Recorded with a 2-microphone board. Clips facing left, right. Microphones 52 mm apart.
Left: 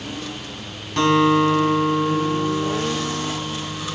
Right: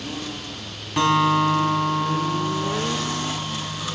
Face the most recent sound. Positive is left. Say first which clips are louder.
# left 2 dB
turn(degrees=-10)  # may be behind; listen again after turning